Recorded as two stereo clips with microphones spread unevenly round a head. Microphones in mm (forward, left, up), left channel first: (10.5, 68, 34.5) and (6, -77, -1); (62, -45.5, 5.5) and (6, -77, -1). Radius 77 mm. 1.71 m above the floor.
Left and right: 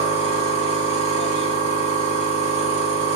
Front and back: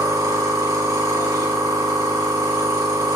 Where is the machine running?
145° right, 3 m.